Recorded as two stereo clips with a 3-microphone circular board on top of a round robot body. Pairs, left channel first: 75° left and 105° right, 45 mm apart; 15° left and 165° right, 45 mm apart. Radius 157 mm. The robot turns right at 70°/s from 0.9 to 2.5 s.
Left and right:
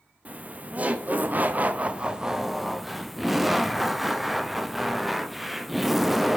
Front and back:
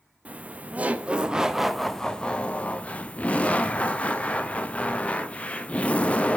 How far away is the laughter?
About 0.7 m.